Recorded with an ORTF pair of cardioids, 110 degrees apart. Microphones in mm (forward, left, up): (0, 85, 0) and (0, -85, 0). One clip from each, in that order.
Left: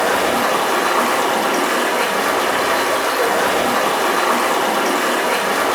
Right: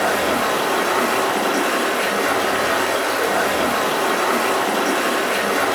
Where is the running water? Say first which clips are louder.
Left 2 dB; 25° left, 0.8 m.